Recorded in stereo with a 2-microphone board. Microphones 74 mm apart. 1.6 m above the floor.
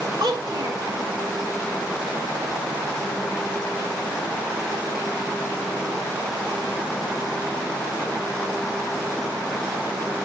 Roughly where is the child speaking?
Right.